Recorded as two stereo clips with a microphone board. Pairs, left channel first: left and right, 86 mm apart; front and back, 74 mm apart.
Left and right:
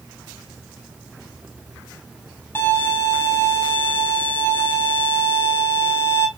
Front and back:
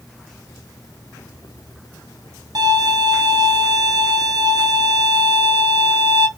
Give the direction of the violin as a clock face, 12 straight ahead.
7 o'clock.